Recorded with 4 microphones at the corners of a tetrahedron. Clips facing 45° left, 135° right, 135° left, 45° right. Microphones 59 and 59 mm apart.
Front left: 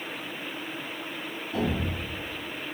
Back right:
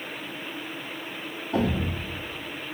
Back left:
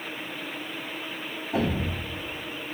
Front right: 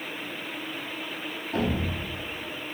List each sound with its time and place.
1.5 s a thud: 145° right, 1.3 m